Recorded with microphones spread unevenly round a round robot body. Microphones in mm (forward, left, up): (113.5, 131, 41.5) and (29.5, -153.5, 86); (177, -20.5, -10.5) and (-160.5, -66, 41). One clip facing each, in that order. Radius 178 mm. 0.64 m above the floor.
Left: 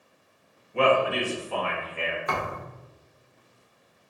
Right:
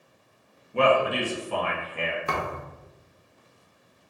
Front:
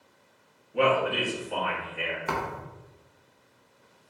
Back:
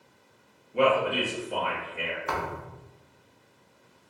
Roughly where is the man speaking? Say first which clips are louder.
Even, back 1 dB; right.